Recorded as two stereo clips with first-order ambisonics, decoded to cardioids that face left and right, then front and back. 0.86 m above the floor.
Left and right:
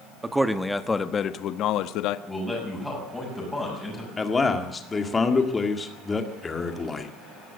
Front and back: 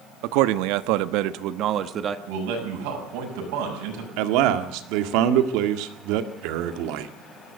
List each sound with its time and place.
0.2 s a man speaking: 170° right, 1.1 m; by 2.2 s 115° left, 1.1 m
2.3 s a man speaking: straight behind, 7 m
4.2 s a man speaking: 165° left, 1.9 m